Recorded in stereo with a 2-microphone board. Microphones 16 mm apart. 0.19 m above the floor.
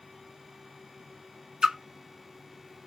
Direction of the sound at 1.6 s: 55° right (ahead or behind).